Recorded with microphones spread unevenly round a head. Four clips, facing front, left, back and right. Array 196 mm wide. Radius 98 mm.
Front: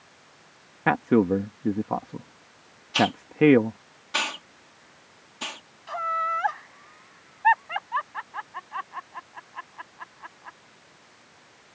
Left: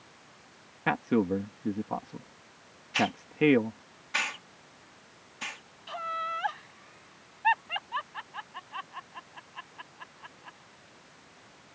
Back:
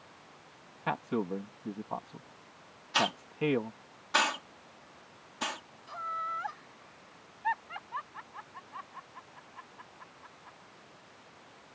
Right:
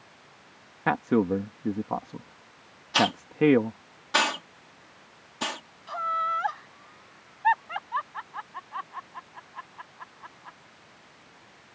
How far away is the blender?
I don't hear a blender.